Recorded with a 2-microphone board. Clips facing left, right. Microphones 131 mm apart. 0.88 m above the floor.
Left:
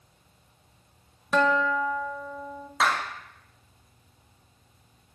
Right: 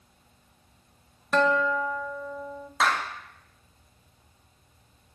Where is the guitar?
5° left (ahead or behind), 0.7 m.